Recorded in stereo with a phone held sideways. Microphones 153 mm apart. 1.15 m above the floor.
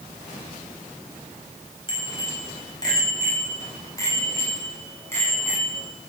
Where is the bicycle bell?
30° left (ahead or behind), 5 m; by 5.9 s 15° left (ahead or behind), 9 m.